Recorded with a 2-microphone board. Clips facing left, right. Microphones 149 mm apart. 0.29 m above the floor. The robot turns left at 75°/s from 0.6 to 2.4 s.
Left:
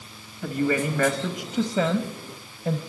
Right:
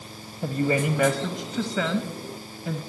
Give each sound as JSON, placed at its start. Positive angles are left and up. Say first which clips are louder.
{"t": 0.4, "sound": "a woman speaking", "louder": "even", "azimuth_deg": -130, "distance_m": 1.2}